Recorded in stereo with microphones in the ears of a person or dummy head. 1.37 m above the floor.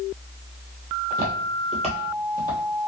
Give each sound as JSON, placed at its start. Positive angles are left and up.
{"t": 1.1, "sound": "footsteps", "side_deg": -25, "distance_m": 1.6}